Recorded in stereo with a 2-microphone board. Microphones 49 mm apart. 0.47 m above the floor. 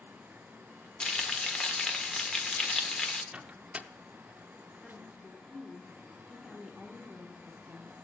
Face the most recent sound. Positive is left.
turn(degrees=0)  # may be behind; listen again after turning